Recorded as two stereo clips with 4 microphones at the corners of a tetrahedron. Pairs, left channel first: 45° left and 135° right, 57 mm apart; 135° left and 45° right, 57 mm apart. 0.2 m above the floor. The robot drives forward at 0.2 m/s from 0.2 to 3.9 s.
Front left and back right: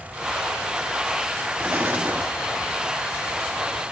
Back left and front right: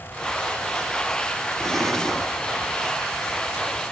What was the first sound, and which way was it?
An explosion, 135° right.